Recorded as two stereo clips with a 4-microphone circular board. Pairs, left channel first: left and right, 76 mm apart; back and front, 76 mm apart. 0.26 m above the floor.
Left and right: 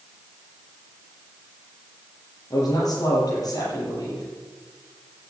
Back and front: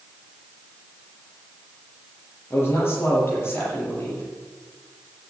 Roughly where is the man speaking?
Behind left.